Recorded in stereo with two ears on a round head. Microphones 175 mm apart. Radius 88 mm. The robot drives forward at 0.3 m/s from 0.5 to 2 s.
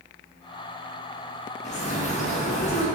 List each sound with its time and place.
1.6 s a bird: 35° left (ahead or behind), 0.5 m